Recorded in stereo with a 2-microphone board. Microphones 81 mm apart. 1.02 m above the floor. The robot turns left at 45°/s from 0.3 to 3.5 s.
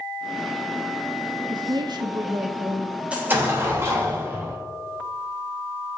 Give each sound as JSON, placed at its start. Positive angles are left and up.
{"t": 1.5, "sound": "a woman speaking", "azimuth_deg": -80, "distance_m": 1.0}
{"t": 3.1, "sound": "an explosion", "side_deg": -15, "distance_m": 3.0}